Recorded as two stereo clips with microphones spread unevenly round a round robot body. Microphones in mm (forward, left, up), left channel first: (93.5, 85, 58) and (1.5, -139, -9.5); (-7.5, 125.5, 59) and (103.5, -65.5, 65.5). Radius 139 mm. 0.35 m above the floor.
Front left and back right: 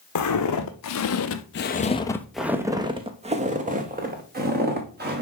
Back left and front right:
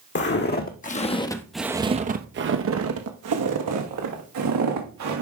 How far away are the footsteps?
About 1.4 m.